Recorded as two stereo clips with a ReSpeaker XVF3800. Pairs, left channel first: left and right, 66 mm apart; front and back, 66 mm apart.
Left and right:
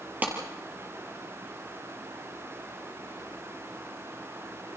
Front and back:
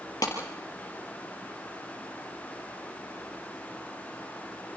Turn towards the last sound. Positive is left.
turn(degrees=-30)